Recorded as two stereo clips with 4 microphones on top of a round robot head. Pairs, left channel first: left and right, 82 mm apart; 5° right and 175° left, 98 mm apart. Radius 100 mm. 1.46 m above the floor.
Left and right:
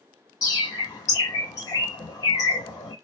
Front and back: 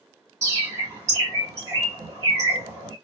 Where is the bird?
125° left, 1.0 m.